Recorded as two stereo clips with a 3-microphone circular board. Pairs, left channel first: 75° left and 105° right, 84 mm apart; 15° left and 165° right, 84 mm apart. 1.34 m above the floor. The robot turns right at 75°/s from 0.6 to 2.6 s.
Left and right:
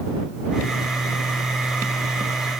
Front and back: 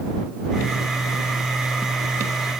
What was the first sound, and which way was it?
Only background noise.